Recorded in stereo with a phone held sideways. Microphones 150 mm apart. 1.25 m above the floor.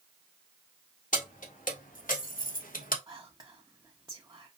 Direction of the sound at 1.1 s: 65° left (ahead or behind).